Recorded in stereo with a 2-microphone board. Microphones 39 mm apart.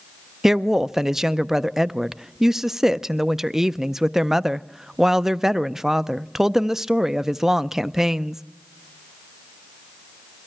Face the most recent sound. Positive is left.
turn(degrees=-10)  # may be behind; listen again after turning